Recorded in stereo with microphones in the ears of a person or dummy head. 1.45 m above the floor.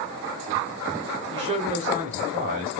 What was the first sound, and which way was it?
A man speaking, 25° right (ahead or behind).